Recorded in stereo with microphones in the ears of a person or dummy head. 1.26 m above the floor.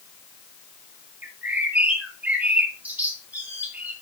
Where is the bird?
10° right (ahead or behind), 2.5 m.